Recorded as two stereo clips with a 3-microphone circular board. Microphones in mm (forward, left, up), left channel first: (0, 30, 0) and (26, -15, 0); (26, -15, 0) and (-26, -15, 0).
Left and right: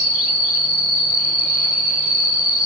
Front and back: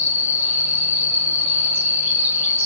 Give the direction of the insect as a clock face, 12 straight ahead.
4 o'clock.